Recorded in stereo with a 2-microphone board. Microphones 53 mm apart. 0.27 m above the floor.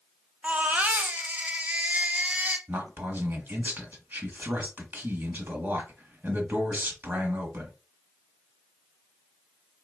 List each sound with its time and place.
0.4 s a baby crying: 30° right (ahead or behind), 0.7 m
2.7 s a man speaking: 40° right (ahead or behind), 1.4 m